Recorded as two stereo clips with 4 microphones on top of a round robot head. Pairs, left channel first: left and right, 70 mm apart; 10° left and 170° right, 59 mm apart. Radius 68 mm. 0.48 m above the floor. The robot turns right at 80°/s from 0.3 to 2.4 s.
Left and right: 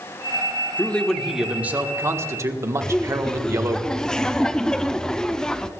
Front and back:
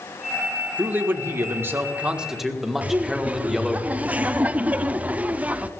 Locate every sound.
0.8 s a man speaking: 145° left, 1.6 m; by 3.8 s 85° right, 1.6 m
2.8 s laughter: 160° left, 0.9 m